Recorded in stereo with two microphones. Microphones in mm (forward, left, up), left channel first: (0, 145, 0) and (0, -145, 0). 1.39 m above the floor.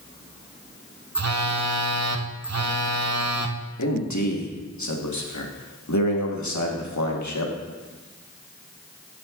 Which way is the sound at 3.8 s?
85° left.